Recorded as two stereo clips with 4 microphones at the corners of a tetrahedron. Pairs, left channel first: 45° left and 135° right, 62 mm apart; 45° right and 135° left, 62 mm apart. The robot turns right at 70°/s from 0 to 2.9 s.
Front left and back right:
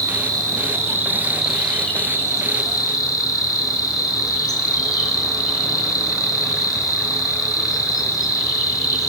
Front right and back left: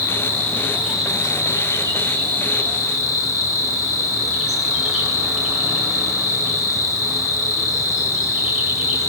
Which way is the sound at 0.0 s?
155° right.